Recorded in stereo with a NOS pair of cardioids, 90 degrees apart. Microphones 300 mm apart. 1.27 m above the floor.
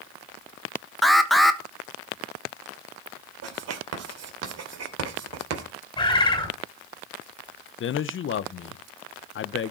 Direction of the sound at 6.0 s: 15° left.